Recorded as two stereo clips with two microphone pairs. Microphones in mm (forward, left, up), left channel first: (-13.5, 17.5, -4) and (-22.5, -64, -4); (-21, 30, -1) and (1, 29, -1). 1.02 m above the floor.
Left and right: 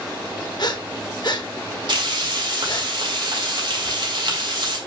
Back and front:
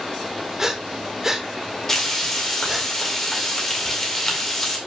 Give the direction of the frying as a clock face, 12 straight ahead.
4 o'clock.